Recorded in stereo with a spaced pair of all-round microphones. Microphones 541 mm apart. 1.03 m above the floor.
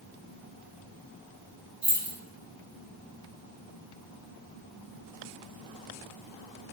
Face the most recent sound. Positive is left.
turn(degrees=-80)